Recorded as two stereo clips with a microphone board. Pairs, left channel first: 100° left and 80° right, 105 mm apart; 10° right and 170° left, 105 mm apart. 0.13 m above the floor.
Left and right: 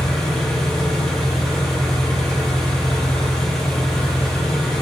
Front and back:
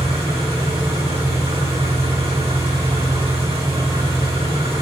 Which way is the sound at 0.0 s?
175° right.